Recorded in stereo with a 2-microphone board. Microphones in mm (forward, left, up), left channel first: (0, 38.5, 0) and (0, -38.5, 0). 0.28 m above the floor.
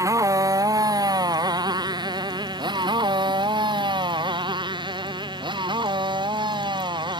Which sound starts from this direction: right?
A motorcycle, at 0.0 s.